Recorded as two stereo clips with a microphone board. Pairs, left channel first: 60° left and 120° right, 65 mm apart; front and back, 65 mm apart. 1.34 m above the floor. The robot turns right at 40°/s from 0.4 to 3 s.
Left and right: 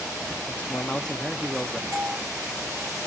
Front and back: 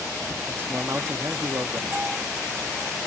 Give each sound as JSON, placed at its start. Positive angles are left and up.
{"t": 0.5, "sound": "a man speaking", "azimuth_deg": 115, "distance_m": 0.9}
{"t": 1.9, "sound": "a doorbell", "azimuth_deg": -115, "distance_m": 1.1}